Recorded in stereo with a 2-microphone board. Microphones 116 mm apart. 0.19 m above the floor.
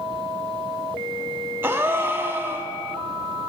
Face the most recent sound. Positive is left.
turn(degrees=-20)  # may be behind; listen again after turning